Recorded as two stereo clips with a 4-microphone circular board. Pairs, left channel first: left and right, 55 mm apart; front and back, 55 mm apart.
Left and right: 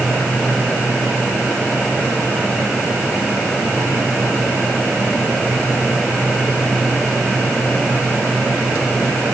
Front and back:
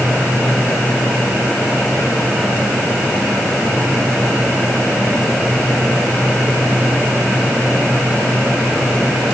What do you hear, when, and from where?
Only background noise.